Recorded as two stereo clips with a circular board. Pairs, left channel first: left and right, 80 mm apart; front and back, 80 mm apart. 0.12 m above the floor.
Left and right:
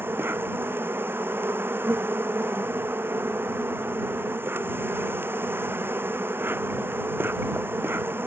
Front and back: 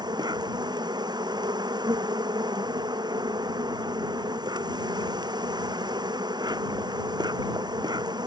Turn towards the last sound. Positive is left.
turn(degrees=-155)